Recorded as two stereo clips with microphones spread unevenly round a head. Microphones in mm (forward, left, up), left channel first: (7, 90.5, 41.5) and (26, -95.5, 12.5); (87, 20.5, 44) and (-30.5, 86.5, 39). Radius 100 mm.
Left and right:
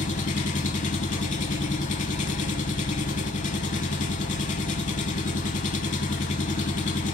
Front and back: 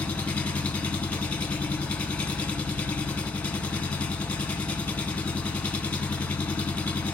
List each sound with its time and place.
0.0 s an engine running: 50° left, 1.0 m